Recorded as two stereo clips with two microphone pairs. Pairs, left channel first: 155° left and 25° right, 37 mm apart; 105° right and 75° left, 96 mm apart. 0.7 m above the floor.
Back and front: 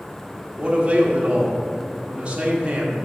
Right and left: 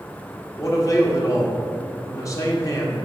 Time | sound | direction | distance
0.6 | a man speaking | 65° right | 1.3 m